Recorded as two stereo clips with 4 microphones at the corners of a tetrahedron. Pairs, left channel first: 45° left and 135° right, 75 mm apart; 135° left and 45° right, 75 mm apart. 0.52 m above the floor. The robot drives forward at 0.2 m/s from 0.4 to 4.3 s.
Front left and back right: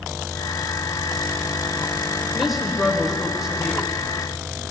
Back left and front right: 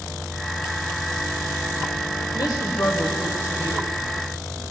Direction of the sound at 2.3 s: 140° left.